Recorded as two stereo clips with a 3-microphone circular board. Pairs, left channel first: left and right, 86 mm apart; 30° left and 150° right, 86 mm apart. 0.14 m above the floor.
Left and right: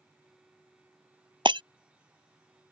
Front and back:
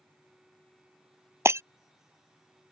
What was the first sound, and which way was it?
Breaking glass, 95° right.